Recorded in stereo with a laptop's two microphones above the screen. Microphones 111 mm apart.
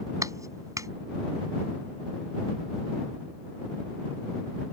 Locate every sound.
0.2 s a clap: 30° right (ahead or behind)